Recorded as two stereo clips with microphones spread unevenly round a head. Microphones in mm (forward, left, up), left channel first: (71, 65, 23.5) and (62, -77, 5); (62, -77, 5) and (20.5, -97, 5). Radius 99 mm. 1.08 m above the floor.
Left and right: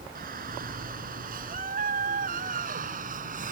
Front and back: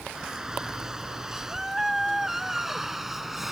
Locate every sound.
0.1 s a shout: 80° right; by 3.5 s 70° right